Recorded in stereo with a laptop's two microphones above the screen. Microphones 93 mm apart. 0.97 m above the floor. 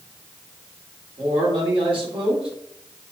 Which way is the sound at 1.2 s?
75° right (ahead or behind).